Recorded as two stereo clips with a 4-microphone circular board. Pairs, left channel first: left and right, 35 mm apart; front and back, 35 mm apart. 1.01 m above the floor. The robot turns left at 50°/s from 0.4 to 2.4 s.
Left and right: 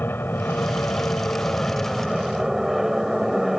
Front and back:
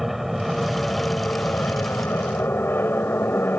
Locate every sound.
0.0 s an aircraft: 95° left; by 3.6 s 5° right